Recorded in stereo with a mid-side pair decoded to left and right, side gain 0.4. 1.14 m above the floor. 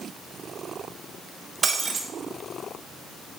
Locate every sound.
1.6 s breaking glass: 45° right, 3 m